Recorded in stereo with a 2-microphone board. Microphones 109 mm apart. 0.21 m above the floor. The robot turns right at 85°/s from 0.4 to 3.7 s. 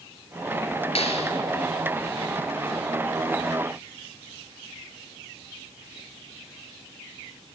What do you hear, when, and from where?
0.9 s a clap: 75° left, 4 m; by 1.3 s 105° left, 4 m